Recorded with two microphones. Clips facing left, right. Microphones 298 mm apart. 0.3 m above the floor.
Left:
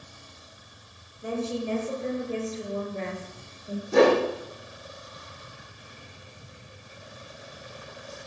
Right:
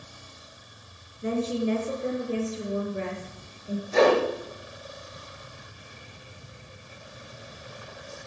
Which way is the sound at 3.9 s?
60° left (ahead or behind).